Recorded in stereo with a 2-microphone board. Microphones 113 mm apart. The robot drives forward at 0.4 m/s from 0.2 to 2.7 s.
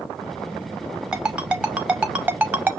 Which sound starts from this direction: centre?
A ringtone, at 1.1 s.